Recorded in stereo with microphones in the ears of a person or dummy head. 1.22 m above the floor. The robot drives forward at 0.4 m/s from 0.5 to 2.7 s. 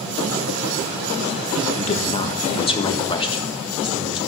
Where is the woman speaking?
35° left (ahead or behind), 1.1 m; by 4.2 s 25° left (ahead or behind), 1.4 m.